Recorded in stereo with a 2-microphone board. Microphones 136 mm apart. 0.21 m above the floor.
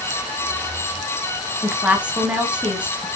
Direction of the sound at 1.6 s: 10° right (ahead or behind).